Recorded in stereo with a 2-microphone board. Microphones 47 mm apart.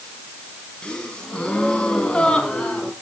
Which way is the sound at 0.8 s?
20° left (ahead or behind).